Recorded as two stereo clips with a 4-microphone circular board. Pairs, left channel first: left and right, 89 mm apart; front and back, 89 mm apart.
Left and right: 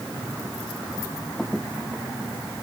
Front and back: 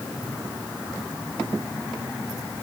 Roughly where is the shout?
No shout in this recording.